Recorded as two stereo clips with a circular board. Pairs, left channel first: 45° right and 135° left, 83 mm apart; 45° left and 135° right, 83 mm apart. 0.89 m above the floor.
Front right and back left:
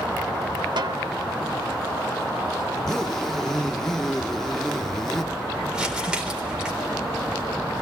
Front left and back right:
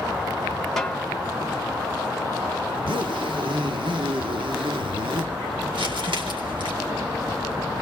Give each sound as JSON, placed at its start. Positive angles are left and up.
{"t": 0.8, "sound": "a snare drum", "azimuth_deg": 130, "distance_m": 1.3}
{"t": 2.7, "sound": "a zipper", "azimuth_deg": -130, "distance_m": 1.5}
{"t": 5.7, "sound": "crumpling", "azimuth_deg": -145, "distance_m": 3.5}